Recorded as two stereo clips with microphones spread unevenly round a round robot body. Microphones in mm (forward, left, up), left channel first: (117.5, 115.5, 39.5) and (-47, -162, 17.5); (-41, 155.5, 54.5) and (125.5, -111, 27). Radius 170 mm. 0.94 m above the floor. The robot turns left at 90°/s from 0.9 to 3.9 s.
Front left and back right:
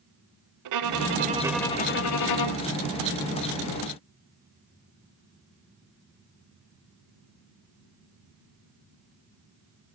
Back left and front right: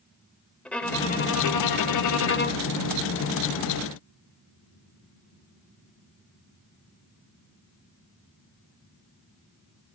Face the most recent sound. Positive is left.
turn(degrees=-65)